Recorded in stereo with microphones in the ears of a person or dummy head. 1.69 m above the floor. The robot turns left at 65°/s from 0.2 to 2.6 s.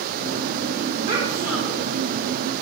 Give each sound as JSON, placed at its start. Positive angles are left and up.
{"t": 1.1, "sound": "a child speaking", "azimuth_deg": -140, "distance_m": 3.5}